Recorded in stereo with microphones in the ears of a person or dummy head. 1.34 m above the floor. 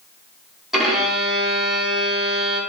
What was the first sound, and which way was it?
A violin, 5° right (ahead or behind).